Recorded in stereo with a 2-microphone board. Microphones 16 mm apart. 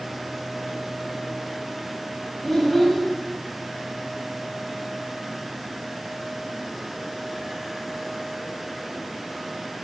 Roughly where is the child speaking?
Centre.